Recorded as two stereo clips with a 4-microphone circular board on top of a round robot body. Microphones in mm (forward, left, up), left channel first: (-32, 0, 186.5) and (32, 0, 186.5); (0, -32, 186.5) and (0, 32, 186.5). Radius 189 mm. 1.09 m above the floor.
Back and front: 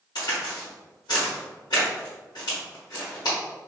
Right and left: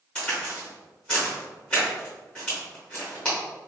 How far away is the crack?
About 0.9 m.